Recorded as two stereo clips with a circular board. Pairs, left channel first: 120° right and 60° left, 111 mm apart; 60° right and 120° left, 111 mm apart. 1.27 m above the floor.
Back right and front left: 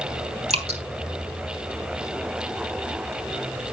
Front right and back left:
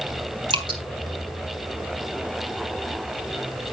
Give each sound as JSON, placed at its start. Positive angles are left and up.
{"t": 0.5, "sound": "dripping", "azimuth_deg": 75, "distance_m": 3.0}